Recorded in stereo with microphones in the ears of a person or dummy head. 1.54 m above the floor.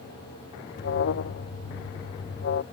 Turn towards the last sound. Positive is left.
turn(degrees=50)  # may be behind; listen again after turning